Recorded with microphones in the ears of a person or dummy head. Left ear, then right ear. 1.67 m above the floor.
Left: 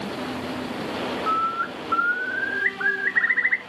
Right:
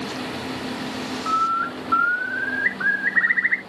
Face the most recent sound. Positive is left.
turn(degrees=5)  # may be behind; listen again after turning